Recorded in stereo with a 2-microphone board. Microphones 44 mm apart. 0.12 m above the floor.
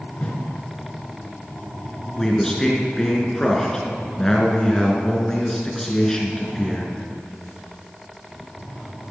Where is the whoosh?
30° left (ahead or behind), 1.8 m.